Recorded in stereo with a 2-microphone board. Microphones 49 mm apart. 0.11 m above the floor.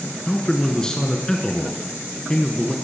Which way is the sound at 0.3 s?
15° left (ahead or behind).